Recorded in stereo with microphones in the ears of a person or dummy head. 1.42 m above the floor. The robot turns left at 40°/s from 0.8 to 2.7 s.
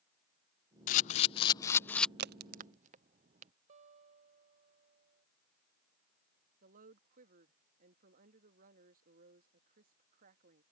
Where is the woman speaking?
50° right (ahead or behind).